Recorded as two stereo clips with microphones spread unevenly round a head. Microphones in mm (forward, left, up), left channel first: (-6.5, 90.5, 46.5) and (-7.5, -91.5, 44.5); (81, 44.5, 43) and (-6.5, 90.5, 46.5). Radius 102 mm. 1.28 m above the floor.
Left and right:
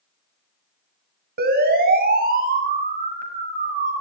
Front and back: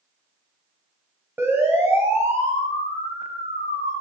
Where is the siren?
130° right, 6 m; by 3.9 s 140° right, 7 m.